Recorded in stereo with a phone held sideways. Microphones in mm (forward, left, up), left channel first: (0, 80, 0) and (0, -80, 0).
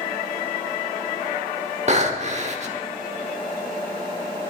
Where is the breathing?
45° right (ahead or behind), 1.2 m.